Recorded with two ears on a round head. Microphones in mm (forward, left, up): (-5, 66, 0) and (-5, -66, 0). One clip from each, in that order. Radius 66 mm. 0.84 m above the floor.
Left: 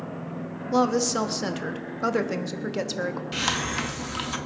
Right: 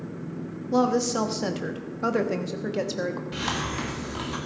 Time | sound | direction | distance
0.7 | a woman speaking | 20° left (ahead or behind) | 0.9 m
3.3 | a hiss | 50° left (ahead or behind) | 1.3 m